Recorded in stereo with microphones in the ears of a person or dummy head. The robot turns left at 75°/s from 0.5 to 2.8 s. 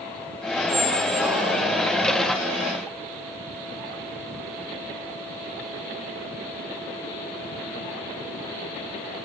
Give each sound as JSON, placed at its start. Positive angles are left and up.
{"t": 0.7, "sound": "a squeak", "azimuth_deg": 25, "distance_m": 1.6}